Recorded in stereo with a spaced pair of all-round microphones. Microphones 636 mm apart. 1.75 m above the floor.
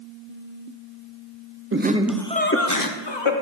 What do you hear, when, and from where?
1.7 s laughter: 20° right (ahead or behind), 0.8 m; by 3.3 s 50° left (ahead or behind), 1.1 m